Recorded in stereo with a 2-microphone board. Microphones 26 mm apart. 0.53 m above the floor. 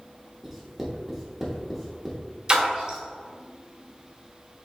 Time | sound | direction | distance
0.4 | writing | 10° right (ahead or behind) | 1.0 m
2.5 | a splash | 30° right (ahead or behind) | 1.2 m